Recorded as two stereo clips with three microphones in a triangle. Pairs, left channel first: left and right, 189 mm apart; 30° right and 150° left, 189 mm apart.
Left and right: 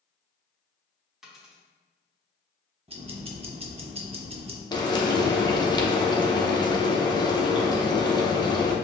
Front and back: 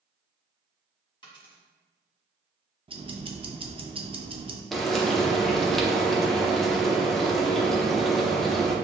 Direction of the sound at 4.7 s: 55° left.